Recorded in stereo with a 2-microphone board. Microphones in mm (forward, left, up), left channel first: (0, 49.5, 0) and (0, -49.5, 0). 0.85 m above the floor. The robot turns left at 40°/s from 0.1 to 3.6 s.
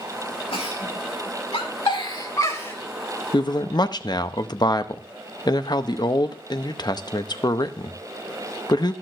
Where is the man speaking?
50° left (ahead or behind), 0.6 m; by 8.9 s 45° left (ahead or behind), 0.6 m.